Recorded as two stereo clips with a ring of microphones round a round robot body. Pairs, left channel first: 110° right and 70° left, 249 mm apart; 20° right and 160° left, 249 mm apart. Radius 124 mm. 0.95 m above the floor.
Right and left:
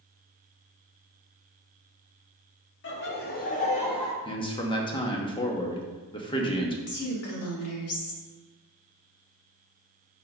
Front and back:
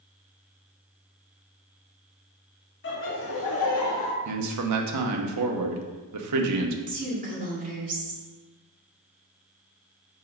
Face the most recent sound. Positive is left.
turn(degrees=-145)